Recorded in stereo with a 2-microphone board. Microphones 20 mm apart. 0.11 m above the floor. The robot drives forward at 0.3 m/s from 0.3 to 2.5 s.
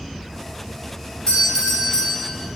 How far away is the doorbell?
About 1.6 m.